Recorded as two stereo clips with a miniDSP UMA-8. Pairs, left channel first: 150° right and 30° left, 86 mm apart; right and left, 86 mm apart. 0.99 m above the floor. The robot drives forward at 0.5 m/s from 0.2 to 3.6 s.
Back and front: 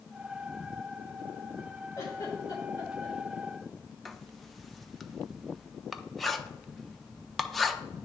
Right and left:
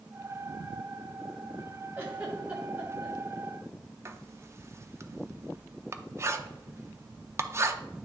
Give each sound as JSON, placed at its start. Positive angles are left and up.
{"t": 2.0, "sound": "a giggle", "azimuth_deg": 155, "distance_m": 1.9}
{"t": 4.0, "sound": "writing", "azimuth_deg": 120, "distance_m": 0.5}